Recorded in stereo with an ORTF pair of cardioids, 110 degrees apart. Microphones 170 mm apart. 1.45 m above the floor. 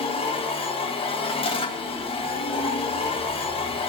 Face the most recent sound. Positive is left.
turn(degrees=30)